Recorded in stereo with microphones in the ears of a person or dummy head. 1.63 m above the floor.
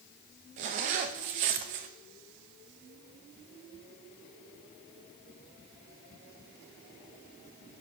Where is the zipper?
45° right (ahead or behind), 1.0 m.